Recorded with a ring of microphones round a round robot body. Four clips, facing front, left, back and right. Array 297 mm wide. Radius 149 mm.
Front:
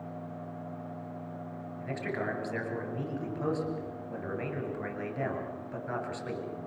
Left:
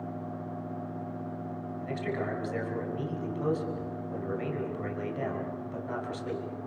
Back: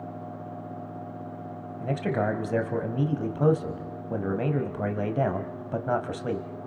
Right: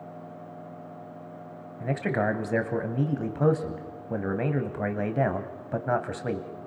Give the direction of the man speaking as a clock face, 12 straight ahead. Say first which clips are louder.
Right 7 dB, back 8 dB; 4 o'clock.